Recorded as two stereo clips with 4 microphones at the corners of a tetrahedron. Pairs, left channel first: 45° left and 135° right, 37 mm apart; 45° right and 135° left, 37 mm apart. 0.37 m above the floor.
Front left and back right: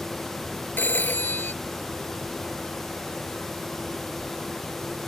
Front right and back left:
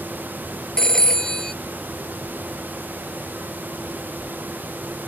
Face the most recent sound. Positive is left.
turn(degrees=30)